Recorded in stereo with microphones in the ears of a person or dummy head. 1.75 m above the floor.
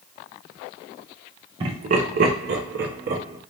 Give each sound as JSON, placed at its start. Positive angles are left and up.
{"t": 1.6, "sound": "laughter", "side_deg": -30, "distance_m": 0.9}